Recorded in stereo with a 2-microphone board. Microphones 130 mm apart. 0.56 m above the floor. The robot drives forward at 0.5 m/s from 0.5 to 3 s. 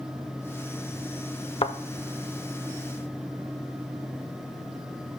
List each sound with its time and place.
1.6 s a thud: 45° left (ahead or behind), 0.7 m; by 1.8 s 40° left (ahead or behind), 0.8 m